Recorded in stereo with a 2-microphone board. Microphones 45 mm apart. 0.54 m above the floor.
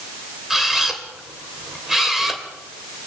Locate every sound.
0.5 s a camera shutter: 5° right (ahead or behind), 3 m